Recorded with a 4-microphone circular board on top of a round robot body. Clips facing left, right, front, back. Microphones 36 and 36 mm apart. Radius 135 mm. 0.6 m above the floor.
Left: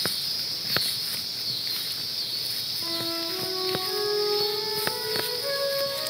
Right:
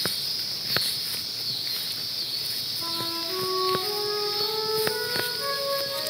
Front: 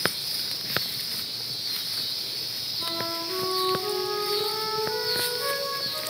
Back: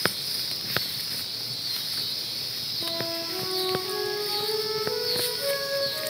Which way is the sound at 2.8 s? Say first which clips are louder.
Left 1 dB, front 1 dB; 25° right.